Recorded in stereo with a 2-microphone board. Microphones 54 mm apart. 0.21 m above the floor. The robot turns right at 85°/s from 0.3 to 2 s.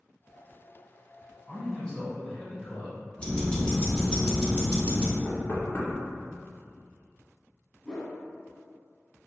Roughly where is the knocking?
Left.